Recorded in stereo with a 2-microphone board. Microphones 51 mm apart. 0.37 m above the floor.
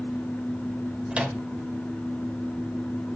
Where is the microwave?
25° right (ahead or behind), 1.2 m.